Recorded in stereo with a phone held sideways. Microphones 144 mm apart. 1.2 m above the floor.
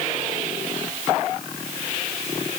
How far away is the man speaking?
No man speaking in this recording.